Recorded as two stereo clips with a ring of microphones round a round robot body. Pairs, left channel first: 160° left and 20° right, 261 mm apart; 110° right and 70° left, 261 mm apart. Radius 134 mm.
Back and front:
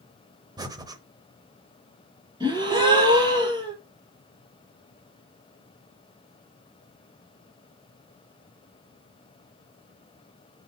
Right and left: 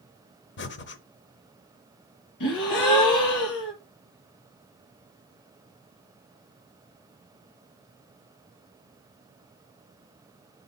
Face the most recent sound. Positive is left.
turn(degrees=-95)